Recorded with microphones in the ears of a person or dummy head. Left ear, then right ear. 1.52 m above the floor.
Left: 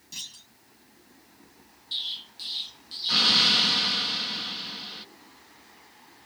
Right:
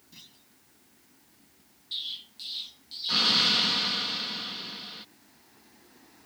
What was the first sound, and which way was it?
A clunk, 50° left (ahead or behind).